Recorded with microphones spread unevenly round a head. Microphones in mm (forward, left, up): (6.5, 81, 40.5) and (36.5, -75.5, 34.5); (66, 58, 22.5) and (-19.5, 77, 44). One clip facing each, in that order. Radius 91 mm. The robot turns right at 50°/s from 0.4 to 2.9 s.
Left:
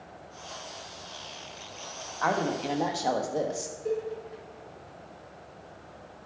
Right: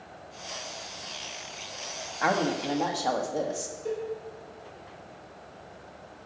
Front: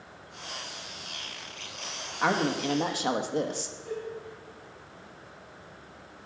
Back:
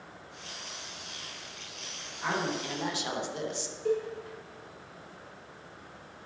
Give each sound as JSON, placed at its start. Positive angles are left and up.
{"t": 2.2, "sound": "a woman speaking", "azimuth_deg": -5, "distance_m": 1.4}
{"t": 3.9, "sound": "a cowbell", "azimuth_deg": -175, "distance_m": 2.5}